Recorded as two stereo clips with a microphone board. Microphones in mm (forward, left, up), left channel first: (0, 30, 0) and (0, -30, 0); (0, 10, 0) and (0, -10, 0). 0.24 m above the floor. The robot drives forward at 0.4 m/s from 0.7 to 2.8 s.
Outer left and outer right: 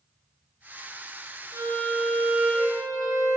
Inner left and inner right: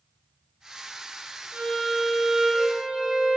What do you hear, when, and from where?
1.5 s a violin: 70° right (ahead or behind), 1.7 m; by 3.4 s 75° right (ahead or behind), 1.7 m